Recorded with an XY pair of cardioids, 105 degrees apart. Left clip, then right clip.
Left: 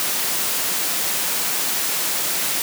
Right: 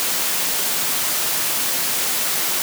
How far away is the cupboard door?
No cupboard door in this recording.